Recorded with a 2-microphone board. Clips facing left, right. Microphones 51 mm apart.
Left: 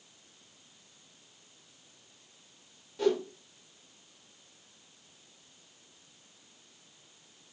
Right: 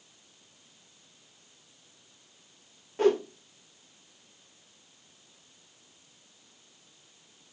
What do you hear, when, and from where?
3.0 s a whoosh: 40° right (ahead or behind), 0.5 m